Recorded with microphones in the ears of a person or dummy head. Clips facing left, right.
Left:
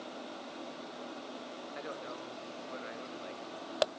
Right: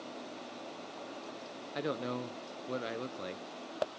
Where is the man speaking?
55° right (ahead or behind), 0.8 m.